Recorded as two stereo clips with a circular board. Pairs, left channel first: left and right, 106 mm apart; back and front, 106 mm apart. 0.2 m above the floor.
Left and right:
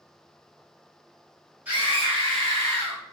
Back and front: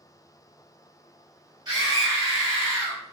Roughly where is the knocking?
I don't hear knocking.